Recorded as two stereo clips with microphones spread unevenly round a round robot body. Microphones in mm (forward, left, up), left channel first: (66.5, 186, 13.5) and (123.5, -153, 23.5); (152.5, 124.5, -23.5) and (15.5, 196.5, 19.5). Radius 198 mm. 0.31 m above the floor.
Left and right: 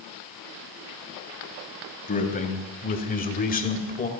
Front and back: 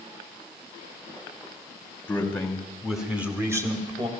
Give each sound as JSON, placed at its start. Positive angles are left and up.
{"t": 2.1, "sound": "a man speaking", "azimuth_deg": 35, "distance_m": 2.5}